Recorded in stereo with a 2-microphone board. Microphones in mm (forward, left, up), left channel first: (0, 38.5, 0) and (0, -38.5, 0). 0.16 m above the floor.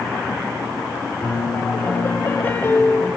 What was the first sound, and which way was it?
A piano, 35° left (ahead or behind).